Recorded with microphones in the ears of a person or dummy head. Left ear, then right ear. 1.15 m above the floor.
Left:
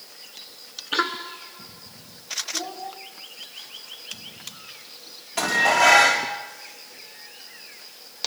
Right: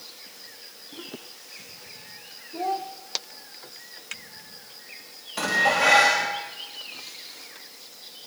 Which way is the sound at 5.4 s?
15° left (ahead or behind).